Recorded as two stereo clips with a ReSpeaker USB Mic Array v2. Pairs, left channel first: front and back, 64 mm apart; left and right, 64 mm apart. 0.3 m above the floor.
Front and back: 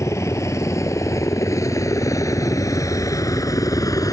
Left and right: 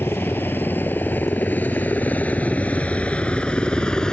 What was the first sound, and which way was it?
A helicopter, 35° left.